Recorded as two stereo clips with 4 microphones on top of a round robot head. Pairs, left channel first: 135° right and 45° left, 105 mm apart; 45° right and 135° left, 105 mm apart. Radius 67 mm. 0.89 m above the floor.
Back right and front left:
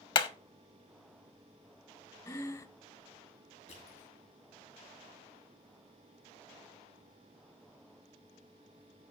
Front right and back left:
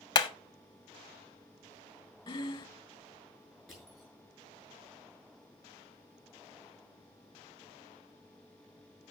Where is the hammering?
95° right, 1.1 m.